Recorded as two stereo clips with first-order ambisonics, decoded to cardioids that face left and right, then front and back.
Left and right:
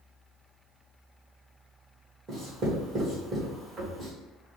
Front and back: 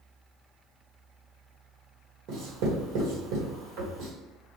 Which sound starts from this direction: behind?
Writing, at 2.3 s.